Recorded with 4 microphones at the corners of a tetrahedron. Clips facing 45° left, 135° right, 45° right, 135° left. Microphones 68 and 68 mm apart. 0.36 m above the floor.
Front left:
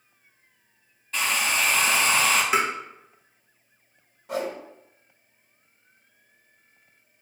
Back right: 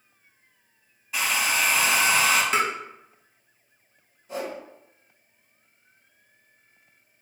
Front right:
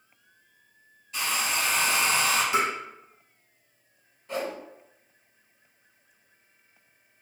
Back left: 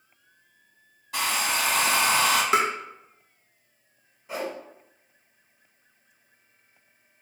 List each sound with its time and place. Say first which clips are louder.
1.1 s a hair dryer: even, back left 2 dB; 140° left, 0.5 m
2.5 s tapping: front left 1 dB, back left 3 dB; 125° left, 0.6 m
4.3 s a whoosh: front left 3 dB, front right 1 dB; 55° left, 0.7 m